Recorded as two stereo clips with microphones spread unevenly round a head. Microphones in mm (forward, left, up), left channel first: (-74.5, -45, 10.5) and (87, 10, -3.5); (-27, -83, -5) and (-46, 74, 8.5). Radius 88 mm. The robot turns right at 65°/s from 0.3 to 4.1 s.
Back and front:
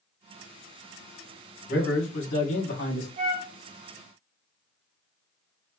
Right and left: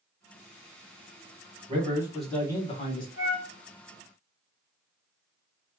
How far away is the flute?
About 1.2 m.